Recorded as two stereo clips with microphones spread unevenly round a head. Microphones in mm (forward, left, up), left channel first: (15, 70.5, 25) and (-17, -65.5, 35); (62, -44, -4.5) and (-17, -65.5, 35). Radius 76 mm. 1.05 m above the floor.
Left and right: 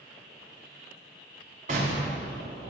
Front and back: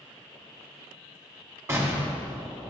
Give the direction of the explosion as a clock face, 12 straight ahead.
4 o'clock.